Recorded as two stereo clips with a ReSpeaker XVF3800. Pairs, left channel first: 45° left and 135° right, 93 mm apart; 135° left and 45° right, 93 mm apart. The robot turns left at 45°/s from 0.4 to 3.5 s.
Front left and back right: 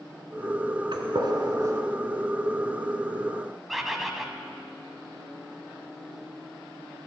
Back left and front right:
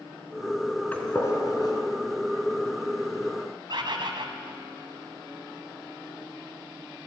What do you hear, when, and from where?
0.9 s a gunshot: 155° right, 1.6 m; by 1.8 s 165° left, 1.6 m
3.7 s a bird: 45° right, 1.3 m